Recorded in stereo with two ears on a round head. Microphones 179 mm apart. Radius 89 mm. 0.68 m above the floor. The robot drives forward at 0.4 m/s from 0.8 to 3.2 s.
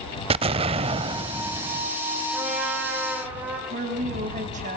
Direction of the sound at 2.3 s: 10° right (ahead or behind).